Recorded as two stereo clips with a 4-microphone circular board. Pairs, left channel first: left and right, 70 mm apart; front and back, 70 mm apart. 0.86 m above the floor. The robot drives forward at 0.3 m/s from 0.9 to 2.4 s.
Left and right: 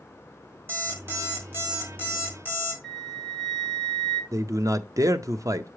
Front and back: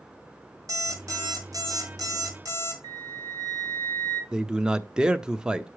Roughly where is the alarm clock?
Behind right.